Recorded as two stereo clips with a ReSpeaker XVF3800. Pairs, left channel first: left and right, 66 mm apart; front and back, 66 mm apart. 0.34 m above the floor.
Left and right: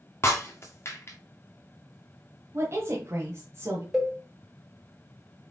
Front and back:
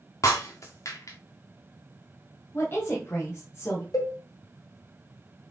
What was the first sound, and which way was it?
Breaking glass, 40° left.